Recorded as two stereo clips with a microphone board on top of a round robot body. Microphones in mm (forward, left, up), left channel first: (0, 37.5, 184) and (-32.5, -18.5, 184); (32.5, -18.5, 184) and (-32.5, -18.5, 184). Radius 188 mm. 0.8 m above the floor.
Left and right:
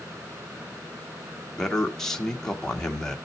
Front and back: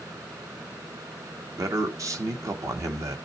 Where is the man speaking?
145° left, 1.5 m.